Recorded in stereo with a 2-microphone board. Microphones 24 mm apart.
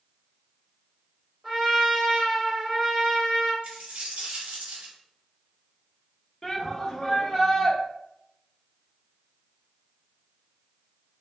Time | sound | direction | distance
1.4 | a trumpet | 25° right (ahead or behind) | 1.0 m
3.6 | a dropped coin | 80° right | 1.2 m
6.4 | a shout | 10° left (ahead or behind) | 0.7 m